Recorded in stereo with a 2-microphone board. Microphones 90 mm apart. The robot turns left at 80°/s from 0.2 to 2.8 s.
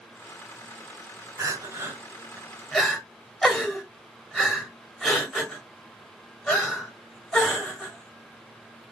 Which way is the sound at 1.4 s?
30° right (ahead or behind).